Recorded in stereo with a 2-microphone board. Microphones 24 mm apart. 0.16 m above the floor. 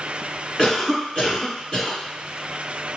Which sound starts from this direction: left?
A cough, at 0.6 s.